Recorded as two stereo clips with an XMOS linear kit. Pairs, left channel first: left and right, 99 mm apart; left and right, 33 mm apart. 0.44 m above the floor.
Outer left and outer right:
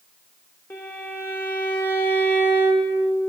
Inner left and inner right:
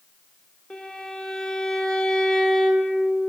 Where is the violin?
20° left (ahead or behind), 0.8 m.